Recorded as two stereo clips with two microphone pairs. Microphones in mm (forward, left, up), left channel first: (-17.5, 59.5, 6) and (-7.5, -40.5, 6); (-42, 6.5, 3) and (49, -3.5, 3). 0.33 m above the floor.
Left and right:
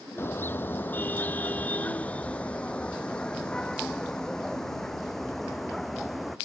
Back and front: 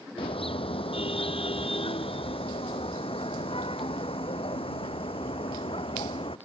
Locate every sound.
0.2 s a car horn: 165° left; by 6.3 s 175° right